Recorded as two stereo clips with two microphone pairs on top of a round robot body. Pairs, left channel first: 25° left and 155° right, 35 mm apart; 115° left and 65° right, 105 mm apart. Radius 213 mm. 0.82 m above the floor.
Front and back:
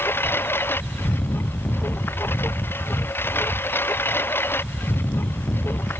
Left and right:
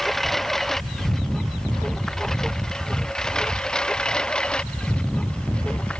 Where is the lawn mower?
30° left; by 6.0 s 35° left.